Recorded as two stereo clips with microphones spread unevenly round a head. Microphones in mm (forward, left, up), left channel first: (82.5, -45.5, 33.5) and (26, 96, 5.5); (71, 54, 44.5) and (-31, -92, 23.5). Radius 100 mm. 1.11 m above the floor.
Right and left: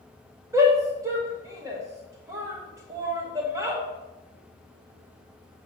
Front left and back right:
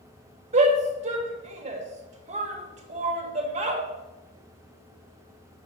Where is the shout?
Straight behind, 1.4 m.